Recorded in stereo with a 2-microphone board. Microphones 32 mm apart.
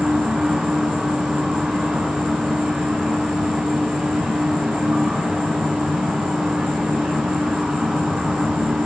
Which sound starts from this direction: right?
An insect, at 0.0 s.